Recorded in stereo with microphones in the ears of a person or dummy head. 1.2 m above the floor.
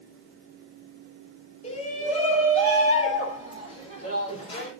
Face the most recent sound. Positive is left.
turn(degrees=35)  # may be behind; listen again after turning